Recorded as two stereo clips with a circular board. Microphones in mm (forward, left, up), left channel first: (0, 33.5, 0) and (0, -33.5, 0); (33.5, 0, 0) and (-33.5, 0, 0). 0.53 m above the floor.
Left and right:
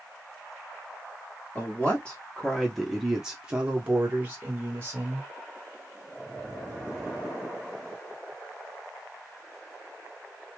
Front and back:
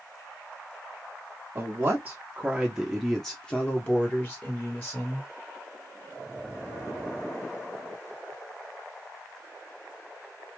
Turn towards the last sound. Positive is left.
turn(degrees=-40)